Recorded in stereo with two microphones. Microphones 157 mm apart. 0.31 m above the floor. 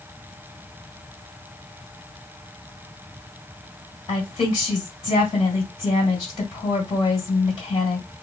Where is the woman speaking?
35° left (ahead or behind), 1.7 m.